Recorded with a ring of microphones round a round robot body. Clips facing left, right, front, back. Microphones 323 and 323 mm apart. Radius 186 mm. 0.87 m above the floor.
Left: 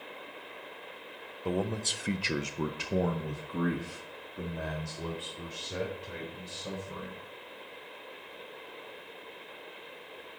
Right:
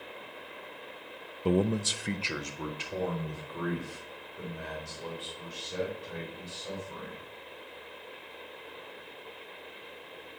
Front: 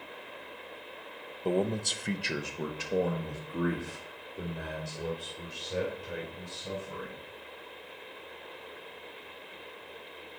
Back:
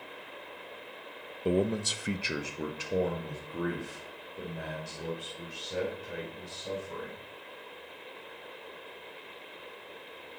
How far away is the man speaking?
About 0.7 m.